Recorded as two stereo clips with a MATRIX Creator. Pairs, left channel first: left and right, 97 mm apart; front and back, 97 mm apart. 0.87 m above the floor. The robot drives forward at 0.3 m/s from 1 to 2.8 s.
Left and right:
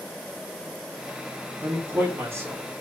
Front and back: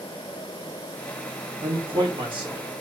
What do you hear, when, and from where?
1.6 s a man speaking: 150° right, 1.7 m; by 2.6 s 155° right, 1.9 m